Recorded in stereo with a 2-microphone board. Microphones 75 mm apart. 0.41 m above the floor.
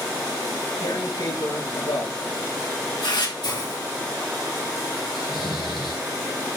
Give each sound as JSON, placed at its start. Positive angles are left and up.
{"t": 0.8, "sound": "tearing paper", "side_deg": 75, "distance_m": 3.5}
{"t": 3.4, "sound": "a hiss", "side_deg": 75, "distance_m": 4.0}
{"t": 5.1, "sound": "snoring", "side_deg": 80, "distance_m": 3.5}